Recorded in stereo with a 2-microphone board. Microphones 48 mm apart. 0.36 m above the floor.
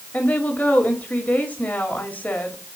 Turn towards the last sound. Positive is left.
turn(degrees=35)  # may be behind; listen again after turning